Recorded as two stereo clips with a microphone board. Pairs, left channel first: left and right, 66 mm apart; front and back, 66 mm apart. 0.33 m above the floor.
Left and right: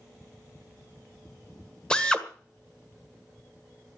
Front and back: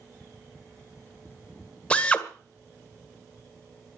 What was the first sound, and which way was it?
A drill, 35° left.